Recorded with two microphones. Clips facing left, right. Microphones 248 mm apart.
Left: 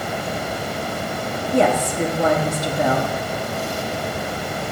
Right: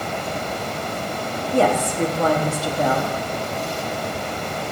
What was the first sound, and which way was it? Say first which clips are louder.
A woman speaking: left 1 dB; 20° left (ahead or behind).